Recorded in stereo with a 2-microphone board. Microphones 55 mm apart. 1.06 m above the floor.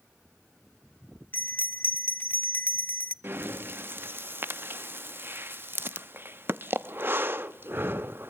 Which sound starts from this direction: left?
A bell, at 1.3 s.